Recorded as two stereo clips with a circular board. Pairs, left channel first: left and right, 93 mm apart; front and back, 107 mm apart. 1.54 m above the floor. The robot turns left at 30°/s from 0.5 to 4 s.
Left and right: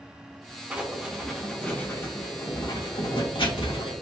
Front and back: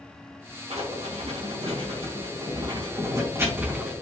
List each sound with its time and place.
0.7 s writing: 165° right, 3 m; by 3.9 s 100° left, 3 m